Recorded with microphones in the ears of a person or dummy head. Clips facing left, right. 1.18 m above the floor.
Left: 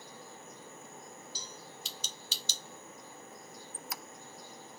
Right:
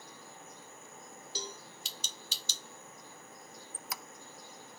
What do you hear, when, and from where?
1.4 s a cowbell: 55° right (ahead or behind), 1.4 m
3.7 s a squeak: 70° right (ahead or behind), 0.5 m